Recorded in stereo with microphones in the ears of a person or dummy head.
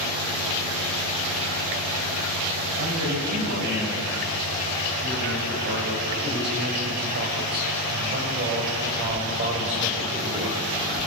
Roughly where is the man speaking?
Right.